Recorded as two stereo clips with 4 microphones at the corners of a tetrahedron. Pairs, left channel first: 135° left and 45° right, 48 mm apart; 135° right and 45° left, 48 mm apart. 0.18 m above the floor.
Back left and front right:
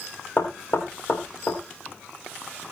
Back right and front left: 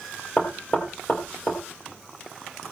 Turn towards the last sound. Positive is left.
turn(degrees=170)